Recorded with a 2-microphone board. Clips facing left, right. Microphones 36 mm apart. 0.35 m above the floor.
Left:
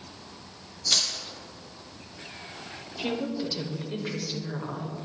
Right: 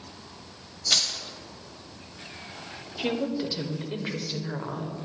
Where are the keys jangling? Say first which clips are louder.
Right 1 dB; 25° right (ahead or behind), 1.3 m.